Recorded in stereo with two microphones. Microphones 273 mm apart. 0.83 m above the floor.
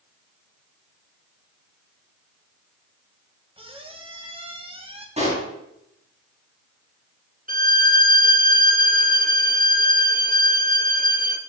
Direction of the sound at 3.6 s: 20° right (ahead or behind).